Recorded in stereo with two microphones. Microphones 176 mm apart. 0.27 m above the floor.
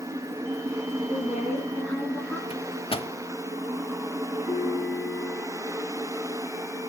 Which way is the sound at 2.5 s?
30° left (ahead or behind).